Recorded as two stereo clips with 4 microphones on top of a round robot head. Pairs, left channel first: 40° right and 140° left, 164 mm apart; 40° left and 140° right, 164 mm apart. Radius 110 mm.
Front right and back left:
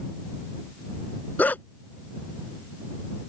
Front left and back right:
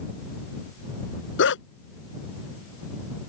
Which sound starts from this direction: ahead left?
A dog barking, at 1.4 s.